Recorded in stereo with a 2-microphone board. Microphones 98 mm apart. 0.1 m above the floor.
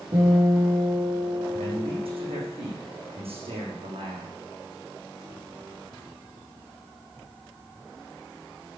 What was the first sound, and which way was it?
A guitar, 55° right (ahead or behind).